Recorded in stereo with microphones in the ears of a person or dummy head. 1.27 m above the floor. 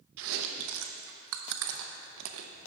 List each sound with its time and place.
0.2 s chewing: 70° right (ahead or behind), 0.6 m